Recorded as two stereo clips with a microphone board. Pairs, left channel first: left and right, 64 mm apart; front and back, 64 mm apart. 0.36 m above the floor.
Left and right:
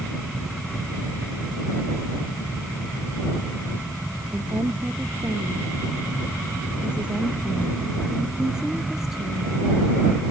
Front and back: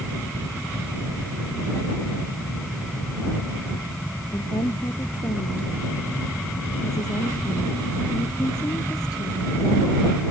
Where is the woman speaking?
30° right; by 10.2 s straight ahead.